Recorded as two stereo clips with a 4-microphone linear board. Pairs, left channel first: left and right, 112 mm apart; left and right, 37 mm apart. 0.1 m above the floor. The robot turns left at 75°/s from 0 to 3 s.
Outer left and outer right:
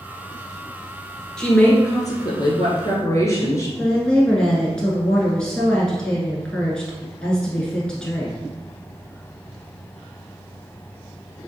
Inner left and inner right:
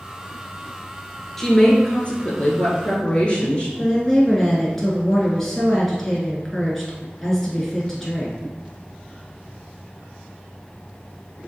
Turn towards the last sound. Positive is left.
turn(degrees=5)  # may be behind; listen again after turning